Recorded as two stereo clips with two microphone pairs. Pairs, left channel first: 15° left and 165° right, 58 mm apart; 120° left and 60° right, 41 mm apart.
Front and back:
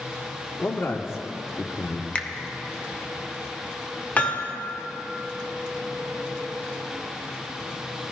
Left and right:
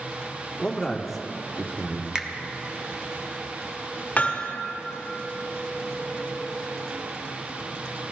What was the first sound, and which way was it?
A man speaking, 45° left.